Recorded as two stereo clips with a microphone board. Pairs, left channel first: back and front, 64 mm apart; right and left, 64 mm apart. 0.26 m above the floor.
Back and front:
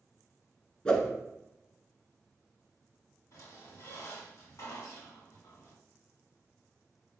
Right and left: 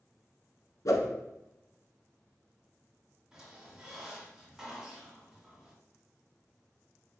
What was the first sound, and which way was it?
A whoosh, 105° right.